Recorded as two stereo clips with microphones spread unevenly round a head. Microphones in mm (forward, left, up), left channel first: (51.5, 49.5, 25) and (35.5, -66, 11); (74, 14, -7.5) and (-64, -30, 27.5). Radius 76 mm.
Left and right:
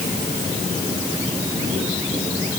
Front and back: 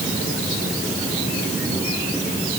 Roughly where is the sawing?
No sawing in this recording.